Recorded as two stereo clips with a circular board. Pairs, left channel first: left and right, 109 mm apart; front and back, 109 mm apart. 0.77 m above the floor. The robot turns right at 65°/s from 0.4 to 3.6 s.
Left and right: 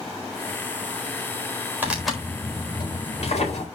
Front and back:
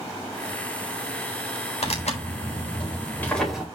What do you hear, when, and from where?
1.8 s tearing paper: 15° right, 4 m; by 3.6 s 100° left, 4 m